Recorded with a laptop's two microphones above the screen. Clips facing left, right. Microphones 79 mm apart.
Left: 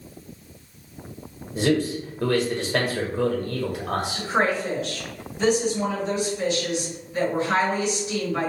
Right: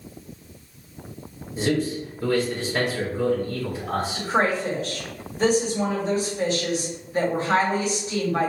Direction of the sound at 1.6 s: 75° left (ahead or behind).